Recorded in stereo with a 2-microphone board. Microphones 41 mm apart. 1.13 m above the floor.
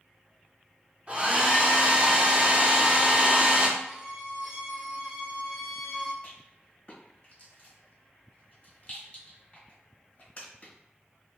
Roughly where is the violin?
Centre.